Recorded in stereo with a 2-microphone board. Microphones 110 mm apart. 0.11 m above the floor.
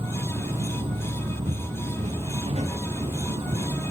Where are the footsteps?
85° right, 7 m; by 3.7 s 75° right (ahead or behind), 8 m.